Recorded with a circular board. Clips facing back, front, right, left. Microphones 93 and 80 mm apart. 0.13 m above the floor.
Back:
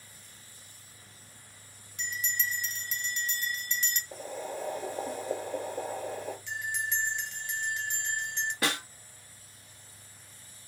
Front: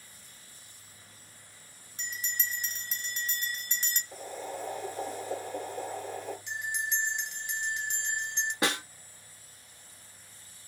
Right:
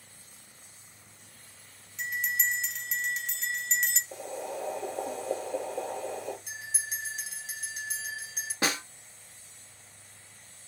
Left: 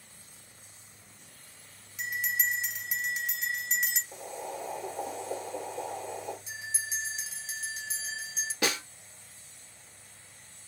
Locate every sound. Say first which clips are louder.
2.0 s a bell: back 3 dB, right 1 dB; 10° left, 0.9 m
4.1 s boiling: front 1 dB, right 2 dB; 110° right, 2.5 m
6.5 s a bell: even, left 1 dB; 75° right, 1.6 m
8.6 s a snare drum: front 2 dB, right 1 dB; 55° right, 1.1 m